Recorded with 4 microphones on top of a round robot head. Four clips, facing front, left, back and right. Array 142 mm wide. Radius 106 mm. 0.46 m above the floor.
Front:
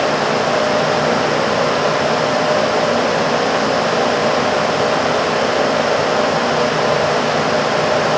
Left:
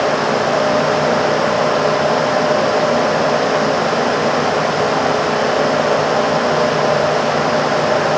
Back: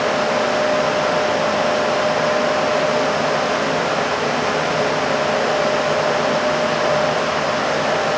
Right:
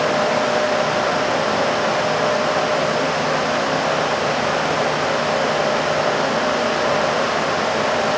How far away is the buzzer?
I don't hear a buzzer.